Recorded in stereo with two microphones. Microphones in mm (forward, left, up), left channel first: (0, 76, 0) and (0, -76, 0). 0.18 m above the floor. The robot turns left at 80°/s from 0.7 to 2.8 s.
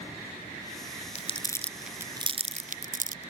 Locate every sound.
1.1 s crumpling: 45° left (ahead or behind); by 3.3 s 60° right (ahead or behind)